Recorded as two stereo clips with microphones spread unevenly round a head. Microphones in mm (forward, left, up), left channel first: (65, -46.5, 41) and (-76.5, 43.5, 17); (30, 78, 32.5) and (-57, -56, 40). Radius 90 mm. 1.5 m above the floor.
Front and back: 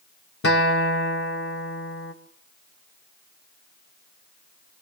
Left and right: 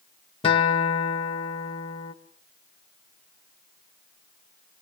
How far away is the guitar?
About 1.7 m.